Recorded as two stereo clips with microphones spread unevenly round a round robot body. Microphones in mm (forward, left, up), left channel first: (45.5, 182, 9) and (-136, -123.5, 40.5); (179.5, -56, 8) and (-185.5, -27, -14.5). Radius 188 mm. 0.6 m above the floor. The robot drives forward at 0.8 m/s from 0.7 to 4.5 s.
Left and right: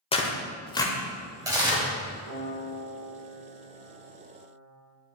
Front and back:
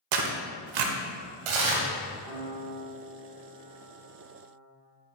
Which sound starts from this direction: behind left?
Tearing paper, at 0.1 s.